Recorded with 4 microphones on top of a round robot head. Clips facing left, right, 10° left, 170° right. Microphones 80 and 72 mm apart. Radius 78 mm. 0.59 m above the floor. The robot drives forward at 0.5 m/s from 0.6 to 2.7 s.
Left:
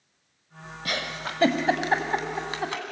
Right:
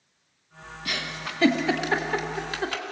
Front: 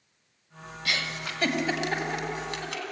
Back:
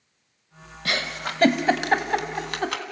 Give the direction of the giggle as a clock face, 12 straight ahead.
7 o'clock.